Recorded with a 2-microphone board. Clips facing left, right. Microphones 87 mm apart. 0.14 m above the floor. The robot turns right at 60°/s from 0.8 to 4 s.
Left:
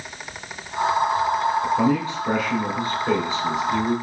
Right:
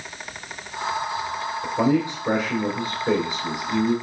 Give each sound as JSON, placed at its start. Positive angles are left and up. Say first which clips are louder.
{"t": 1.6, "sound": "a man speaking", "louder": "left 1 dB", "side_deg": -10, "distance_m": 1.0}